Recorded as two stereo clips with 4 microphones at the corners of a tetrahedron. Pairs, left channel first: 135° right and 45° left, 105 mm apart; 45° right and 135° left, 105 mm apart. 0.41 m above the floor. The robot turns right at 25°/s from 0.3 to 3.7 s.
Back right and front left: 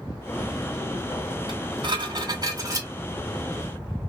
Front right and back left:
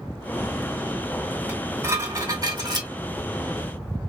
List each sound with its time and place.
1.5 s dishes clattering: 65° left, 1.6 m; by 2.9 s 100° left, 1.6 m